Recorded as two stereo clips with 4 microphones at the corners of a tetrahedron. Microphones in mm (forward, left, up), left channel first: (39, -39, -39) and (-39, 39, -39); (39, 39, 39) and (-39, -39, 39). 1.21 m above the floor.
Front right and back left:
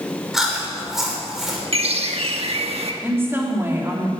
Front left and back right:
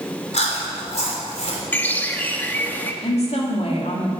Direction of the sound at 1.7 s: 120° left.